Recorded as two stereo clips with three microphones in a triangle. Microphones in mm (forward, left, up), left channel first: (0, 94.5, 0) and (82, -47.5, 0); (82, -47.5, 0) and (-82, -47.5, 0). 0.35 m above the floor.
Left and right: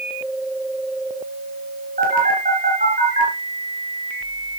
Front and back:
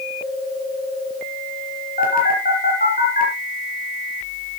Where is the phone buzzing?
30° right, 5 m.